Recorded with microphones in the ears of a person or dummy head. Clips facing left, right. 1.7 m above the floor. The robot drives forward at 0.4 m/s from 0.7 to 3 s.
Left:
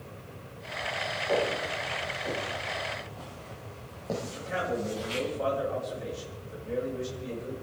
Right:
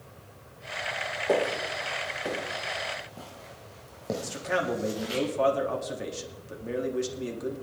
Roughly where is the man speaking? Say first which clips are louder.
Right 4 dB; right.